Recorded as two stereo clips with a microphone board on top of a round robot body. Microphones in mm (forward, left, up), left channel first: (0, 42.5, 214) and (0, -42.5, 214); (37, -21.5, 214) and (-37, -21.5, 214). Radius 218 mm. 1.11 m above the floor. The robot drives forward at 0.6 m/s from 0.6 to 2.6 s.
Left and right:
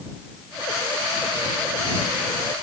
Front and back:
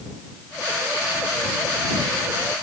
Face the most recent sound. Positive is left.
No sound to turn to.